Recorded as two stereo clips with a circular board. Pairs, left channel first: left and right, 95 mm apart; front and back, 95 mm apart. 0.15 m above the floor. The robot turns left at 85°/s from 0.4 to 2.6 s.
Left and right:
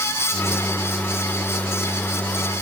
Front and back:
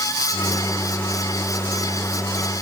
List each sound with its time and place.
Only background noise.